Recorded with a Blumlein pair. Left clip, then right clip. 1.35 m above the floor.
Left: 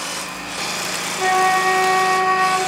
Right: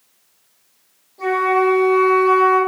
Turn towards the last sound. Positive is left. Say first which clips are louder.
# even
turn(degrees=30)